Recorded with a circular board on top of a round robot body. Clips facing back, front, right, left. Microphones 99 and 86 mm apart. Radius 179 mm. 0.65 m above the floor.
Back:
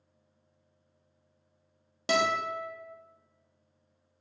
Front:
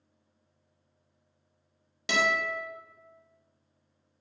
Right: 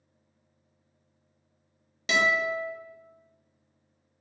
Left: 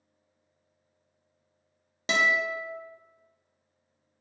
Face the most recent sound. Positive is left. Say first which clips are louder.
# back 1 dB, right 1 dB
turn(degrees=135)